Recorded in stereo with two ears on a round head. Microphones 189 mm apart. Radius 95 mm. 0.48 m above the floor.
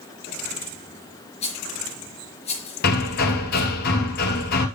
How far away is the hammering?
About 2 m.